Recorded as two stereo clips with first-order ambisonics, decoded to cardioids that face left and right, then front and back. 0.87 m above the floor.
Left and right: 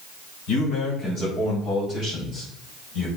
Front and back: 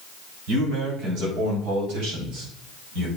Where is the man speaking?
140° left, 3.5 m; by 3.1 s 165° left, 5.5 m.